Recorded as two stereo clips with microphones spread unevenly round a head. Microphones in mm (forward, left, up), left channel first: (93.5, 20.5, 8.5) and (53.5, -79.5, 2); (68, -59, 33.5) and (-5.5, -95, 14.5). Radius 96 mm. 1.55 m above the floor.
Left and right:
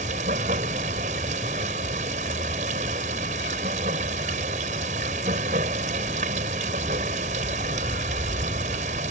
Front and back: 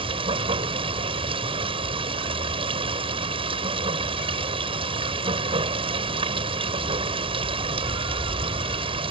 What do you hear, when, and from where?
0.0 s running water: 150° right